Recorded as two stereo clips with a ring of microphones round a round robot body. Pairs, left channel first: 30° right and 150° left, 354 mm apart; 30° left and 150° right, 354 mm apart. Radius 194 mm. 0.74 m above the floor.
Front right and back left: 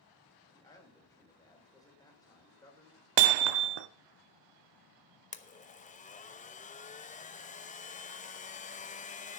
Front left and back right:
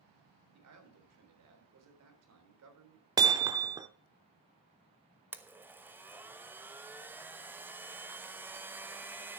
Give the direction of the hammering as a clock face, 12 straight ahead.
8 o'clock.